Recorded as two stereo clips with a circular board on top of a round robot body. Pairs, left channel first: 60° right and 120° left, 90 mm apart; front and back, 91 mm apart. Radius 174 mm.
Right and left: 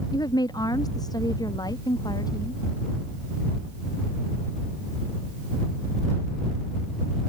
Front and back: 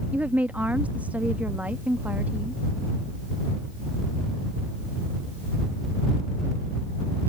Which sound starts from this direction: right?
A woman speaking, at 0.1 s.